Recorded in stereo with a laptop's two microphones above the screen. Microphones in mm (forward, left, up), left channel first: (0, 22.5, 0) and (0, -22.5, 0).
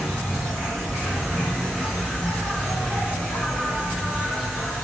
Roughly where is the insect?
Centre.